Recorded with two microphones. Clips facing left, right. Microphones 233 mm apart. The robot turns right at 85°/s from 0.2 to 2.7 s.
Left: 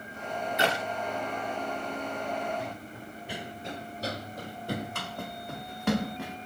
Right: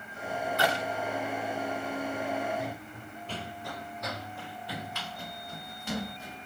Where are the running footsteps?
Centre (ahead or behind), 3 m; by 6.4 s 65° left (ahead or behind), 5 m.